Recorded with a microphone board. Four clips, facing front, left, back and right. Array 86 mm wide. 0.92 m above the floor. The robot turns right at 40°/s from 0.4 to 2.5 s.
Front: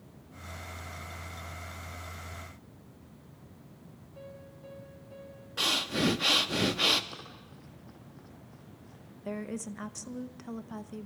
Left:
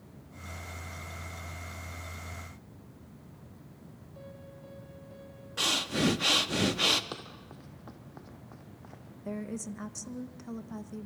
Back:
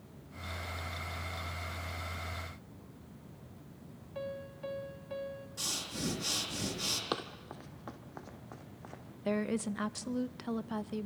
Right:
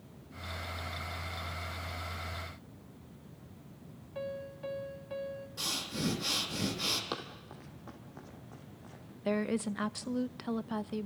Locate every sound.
4.2 s a piano: 135° right, 2 m
5.6 s breathing: 45° left, 1.2 m
7.1 s running footsteps: 170° right, 2 m; by 9.0 s 155° left, 3.5 m
9.2 s a woman speaking: 115° right, 0.6 m